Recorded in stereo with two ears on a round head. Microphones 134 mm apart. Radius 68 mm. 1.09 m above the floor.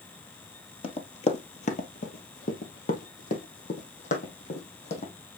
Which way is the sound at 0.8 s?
40° left (ahead or behind).